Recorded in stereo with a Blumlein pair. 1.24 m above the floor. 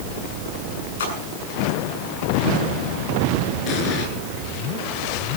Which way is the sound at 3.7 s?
35° left.